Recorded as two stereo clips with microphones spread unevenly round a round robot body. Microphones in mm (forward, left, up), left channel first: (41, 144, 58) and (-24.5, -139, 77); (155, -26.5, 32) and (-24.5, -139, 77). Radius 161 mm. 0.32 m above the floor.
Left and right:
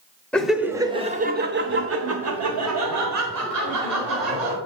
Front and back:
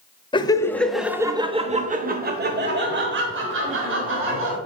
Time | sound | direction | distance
0.3 | laughter | 5° right | 1.2 m